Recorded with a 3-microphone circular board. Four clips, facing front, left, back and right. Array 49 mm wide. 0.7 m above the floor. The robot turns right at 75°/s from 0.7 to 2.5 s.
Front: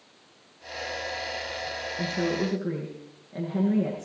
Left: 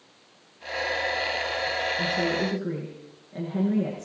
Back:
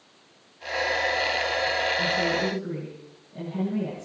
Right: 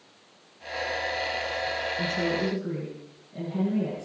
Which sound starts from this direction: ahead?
A woman speaking, at 2.0 s.